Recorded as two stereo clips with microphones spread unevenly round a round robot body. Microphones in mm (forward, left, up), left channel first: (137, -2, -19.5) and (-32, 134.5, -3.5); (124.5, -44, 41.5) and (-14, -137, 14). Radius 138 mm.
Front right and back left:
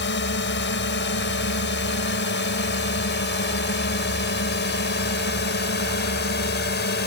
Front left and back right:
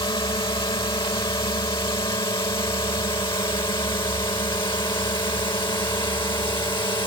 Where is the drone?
25° right; by 7.1 s 30° right.